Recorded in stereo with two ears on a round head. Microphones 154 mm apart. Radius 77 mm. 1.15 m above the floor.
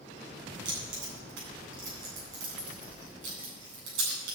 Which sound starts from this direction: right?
Keys jangling, at 0.7 s.